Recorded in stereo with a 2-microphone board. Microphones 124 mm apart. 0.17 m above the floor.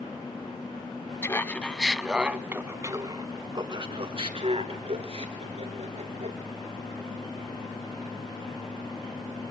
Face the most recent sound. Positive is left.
turn(degrees=-60)  # may be behind; listen again after turning